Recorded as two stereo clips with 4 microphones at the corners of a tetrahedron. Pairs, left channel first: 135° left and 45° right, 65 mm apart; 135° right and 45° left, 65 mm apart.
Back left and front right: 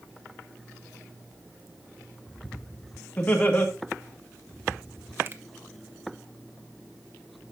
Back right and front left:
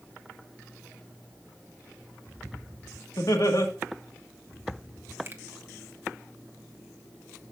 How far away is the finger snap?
About 0.8 m.